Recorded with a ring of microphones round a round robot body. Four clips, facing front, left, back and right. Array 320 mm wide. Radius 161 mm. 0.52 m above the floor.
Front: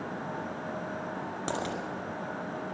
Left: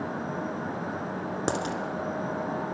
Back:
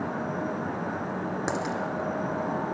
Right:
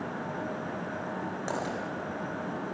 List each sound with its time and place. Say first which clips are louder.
1.5 s a dropped coin: left 4 dB, back 1 dB; 100° left, 2.0 m